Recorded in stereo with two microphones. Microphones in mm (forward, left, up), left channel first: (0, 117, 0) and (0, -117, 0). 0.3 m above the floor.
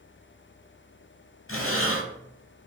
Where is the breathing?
65° left (ahead or behind), 0.6 m.